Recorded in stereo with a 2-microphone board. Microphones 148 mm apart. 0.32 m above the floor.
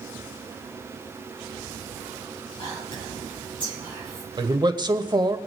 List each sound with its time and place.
2.6 s whispering: 35° left (ahead or behind), 7 m
4.4 s a man speaking: 30° right (ahead or behind), 0.9 m